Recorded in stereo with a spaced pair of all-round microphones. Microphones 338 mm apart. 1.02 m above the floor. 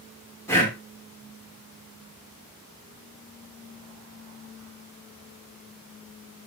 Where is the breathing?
5° left (ahead or behind), 2.5 m.